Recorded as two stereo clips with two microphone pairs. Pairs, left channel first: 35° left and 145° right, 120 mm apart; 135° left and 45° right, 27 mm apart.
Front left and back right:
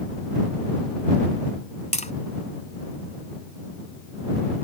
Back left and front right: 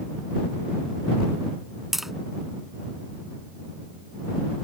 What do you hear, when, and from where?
1.9 s tapping: 35° left